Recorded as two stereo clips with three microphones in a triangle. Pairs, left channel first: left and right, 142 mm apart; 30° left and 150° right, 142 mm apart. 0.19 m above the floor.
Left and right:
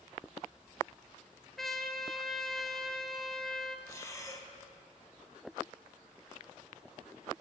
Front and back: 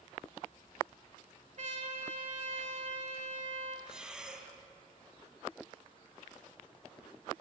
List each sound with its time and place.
1.6 s a trumpet: straight behind, 0.6 m
3.9 s breathing: 130° left, 0.7 m